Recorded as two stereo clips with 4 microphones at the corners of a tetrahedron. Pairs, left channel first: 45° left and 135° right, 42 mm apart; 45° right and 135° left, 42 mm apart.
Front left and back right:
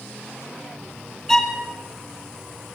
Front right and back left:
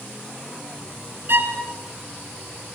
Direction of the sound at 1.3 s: 125° left.